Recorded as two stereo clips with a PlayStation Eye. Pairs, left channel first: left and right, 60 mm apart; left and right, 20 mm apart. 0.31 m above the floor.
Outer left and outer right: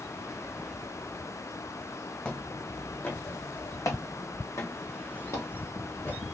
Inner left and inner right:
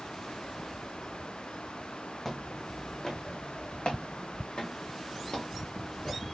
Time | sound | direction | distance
2.2 | footsteps | 20° left (ahead or behind) | 1.0 m